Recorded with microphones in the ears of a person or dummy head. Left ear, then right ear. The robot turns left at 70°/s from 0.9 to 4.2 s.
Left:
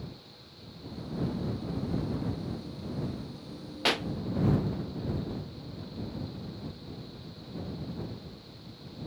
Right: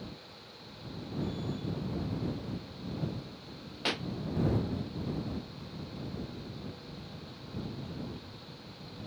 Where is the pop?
15° left (ahead or behind); by 4.1 s 30° left (ahead or behind).